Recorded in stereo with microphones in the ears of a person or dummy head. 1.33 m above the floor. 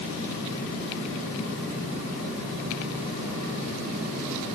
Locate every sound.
Only background noise.